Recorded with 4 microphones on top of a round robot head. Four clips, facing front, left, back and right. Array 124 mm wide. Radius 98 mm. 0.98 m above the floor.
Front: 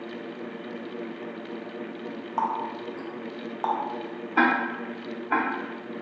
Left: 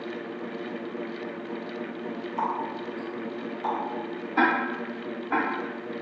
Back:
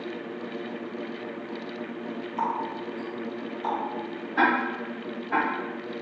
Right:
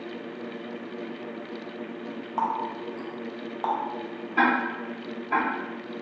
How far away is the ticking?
About 0.5 m.